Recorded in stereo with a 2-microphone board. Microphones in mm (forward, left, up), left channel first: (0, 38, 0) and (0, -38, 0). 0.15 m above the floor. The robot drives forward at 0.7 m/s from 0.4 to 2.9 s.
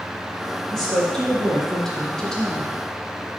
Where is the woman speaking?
5° left (ahead or behind), 3 m; by 2.7 s 10° left (ahead or behind), 1.6 m.